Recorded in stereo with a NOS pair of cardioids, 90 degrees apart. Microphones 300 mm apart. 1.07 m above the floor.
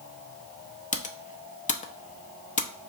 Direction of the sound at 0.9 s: 25° left.